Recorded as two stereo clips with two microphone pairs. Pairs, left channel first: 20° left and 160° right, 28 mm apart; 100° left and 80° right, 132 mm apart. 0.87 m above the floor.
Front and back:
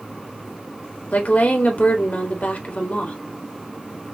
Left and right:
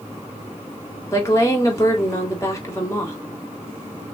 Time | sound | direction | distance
1.1 | a woman speaking | 35° left | 2.5 m